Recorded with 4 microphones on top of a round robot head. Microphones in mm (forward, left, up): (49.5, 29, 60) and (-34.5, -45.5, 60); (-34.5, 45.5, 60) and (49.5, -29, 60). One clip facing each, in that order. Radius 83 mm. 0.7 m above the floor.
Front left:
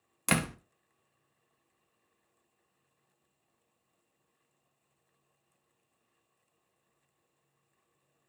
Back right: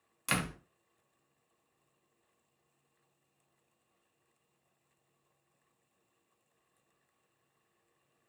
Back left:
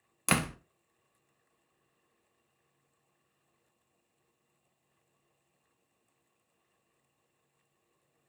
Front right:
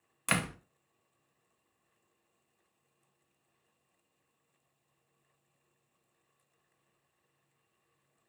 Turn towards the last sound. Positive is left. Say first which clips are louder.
# front left 5 dB, back left 3 dB
turn(degrees=85)